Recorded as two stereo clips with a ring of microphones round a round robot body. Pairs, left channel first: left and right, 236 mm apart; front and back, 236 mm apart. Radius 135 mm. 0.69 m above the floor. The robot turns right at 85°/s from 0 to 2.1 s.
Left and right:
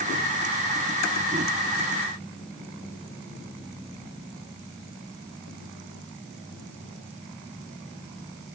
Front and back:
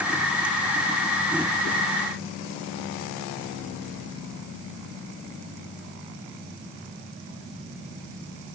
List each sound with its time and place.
Only background noise.